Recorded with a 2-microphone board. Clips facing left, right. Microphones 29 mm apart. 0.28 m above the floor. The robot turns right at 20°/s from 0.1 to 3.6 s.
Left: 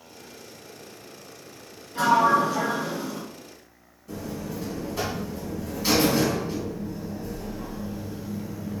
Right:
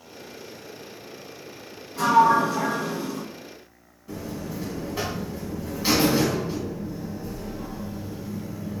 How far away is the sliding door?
About 1.1 m.